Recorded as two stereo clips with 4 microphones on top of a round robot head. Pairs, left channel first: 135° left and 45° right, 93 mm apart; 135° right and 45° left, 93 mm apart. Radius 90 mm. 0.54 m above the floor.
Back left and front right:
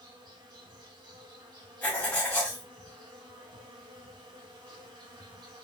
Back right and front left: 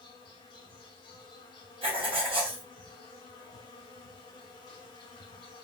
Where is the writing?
65° left, 1.5 m.